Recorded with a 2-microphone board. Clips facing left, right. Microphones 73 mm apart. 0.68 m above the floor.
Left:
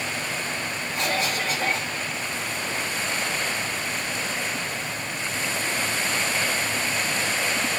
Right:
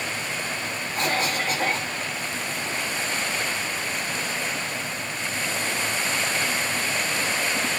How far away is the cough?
About 2 m.